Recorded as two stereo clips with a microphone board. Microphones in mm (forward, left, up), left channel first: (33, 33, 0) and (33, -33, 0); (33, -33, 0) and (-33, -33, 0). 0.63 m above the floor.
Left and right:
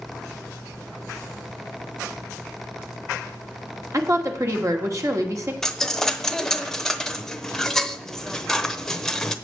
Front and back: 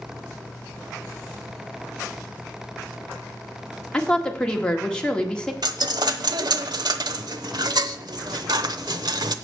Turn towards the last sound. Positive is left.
turn(degrees=175)